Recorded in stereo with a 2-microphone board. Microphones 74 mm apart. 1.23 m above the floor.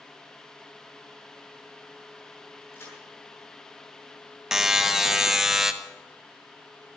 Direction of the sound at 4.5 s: 5° right (ahead or behind).